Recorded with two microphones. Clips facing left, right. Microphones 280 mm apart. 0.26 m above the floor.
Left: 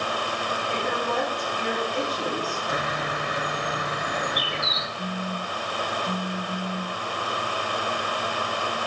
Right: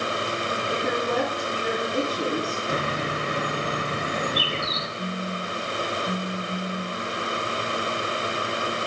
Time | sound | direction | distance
0.7 | a woman speaking | 45° right (ahead or behind) | 8 m
2.7 | a bird | 30° right (ahead or behind) | 1.0 m
5.0 | a phone buzzing | 10° right (ahead or behind) | 2 m